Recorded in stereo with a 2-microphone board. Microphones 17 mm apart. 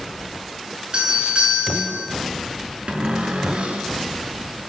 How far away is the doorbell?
About 5.5 m.